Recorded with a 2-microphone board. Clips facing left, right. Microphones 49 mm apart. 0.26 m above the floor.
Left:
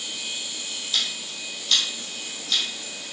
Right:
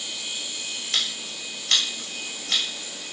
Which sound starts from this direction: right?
Scissors, at 0.9 s.